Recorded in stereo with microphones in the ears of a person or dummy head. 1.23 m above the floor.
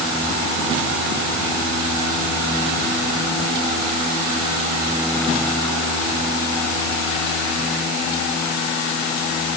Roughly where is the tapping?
I don't hear tapping.